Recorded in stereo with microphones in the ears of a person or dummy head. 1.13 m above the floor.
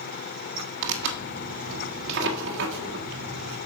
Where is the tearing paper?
55° right (ahead or behind), 2 m.